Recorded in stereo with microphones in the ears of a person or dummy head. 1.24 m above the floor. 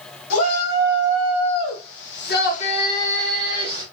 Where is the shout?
75° left (ahead or behind), 1.9 m; by 3.8 s 20° right (ahead or behind), 1.0 m.